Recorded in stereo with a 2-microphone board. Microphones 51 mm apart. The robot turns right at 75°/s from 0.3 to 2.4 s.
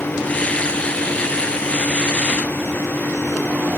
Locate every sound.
Only background noise.